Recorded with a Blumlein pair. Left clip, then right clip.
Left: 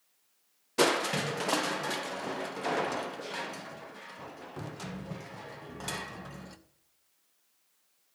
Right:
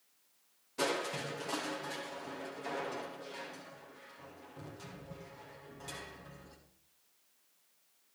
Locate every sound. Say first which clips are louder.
0.8 s crushing: left 8 dB; 30° left, 1.1 m